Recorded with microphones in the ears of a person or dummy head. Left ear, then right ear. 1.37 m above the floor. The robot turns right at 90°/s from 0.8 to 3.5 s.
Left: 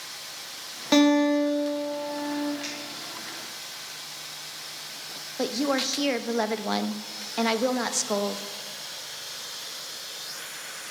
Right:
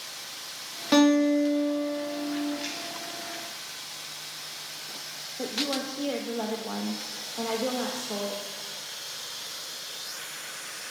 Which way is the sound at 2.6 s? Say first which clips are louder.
Even; 35° left (ahead or behind).